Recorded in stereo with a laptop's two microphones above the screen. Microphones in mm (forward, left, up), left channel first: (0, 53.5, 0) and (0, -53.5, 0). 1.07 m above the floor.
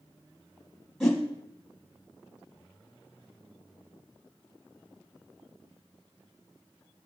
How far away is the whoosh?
About 1.5 m.